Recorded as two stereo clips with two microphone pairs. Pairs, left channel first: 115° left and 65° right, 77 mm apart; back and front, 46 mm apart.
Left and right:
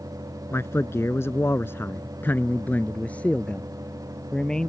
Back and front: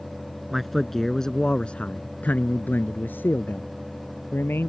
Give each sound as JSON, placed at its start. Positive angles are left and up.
{"t": 0.5, "sound": "a man speaking", "azimuth_deg": 85}